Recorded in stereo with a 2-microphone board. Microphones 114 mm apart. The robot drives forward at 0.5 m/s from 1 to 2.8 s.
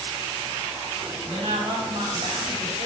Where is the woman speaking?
55° right (ahead or behind), 1.6 m; by 2.9 s 75° right (ahead or behind), 1.4 m.